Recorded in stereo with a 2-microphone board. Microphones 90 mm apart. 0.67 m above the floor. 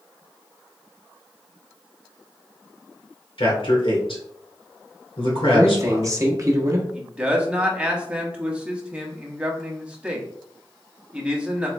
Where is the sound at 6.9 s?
10° right (ahead or behind), 0.9 m.